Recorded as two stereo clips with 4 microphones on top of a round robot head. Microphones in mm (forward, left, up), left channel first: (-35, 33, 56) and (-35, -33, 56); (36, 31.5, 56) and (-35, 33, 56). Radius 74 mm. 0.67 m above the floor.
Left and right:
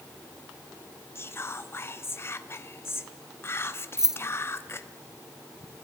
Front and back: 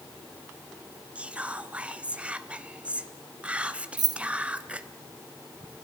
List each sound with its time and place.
1.1 s whispering: 115° left, 1.3 m
4.0 s keys jangling: 170° right, 1.1 m